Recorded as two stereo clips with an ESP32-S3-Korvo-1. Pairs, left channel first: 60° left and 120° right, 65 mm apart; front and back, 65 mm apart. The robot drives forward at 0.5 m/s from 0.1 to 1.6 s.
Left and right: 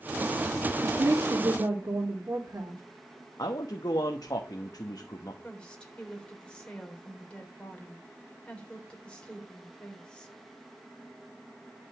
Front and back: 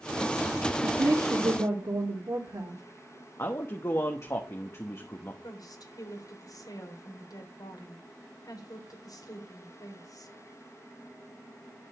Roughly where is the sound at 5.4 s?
Ahead.